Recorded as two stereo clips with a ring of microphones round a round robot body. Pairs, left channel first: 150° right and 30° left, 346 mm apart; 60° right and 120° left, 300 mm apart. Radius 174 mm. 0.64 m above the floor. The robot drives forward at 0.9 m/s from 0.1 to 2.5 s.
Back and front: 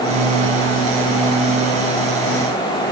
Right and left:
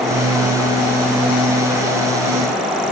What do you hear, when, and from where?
Only background noise.